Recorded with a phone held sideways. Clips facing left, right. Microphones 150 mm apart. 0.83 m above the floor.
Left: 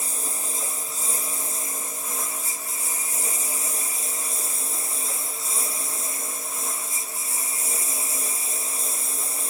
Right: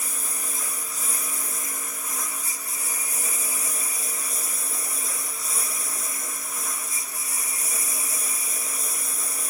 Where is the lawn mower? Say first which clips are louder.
Left 2 dB; 25° left (ahead or behind).